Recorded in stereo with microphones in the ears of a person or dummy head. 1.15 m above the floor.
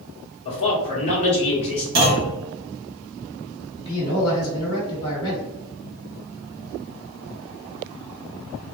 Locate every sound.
0.5 s a man speaking: 35° left (ahead or behind), 1.6 m
1.9 s a clunk: 65° right (ahead or behind), 1.2 m
3.8 s a man speaking: 25° left (ahead or behind), 2.0 m